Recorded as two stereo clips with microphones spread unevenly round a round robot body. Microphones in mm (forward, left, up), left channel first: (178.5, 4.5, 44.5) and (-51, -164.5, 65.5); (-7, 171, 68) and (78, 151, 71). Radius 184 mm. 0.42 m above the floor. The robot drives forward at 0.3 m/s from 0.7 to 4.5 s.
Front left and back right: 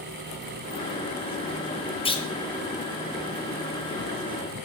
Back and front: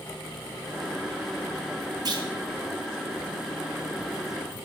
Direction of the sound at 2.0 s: 25° right.